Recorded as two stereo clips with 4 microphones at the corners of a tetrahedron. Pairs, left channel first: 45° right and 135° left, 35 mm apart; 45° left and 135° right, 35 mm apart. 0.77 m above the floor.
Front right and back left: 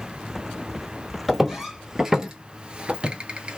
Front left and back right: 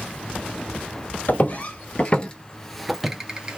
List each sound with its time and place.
1.3 s footsteps: 55° left, 1.3 m; by 3.6 s 175° right, 0.9 m